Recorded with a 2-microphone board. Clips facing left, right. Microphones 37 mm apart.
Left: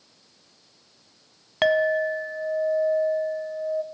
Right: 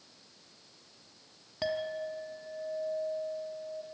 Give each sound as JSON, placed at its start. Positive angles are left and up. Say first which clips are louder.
{"t": 1.6, "sound": "a clink", "louder": "left 14 dB", "side_deg": 60, "distance_m": 0.5}